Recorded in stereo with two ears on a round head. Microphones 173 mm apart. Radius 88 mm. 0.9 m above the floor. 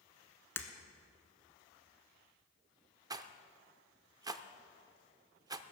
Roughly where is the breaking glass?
Centre.